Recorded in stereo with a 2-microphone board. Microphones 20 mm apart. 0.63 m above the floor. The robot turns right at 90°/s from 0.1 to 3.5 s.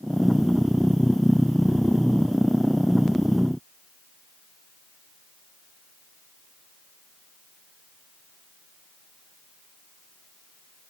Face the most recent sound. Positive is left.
No sound to turn to.